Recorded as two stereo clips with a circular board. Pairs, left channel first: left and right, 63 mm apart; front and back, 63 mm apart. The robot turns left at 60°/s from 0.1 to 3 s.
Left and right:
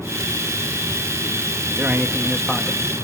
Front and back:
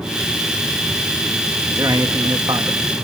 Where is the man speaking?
140° right, 2 m; by 2.8 s 155° left, 2 m.